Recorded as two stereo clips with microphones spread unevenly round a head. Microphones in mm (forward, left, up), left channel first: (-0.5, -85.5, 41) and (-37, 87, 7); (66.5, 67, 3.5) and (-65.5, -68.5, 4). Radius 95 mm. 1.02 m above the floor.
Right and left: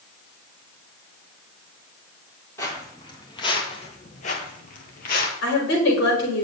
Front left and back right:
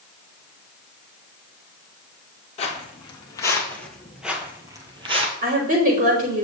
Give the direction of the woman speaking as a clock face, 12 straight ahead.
3 o'clock.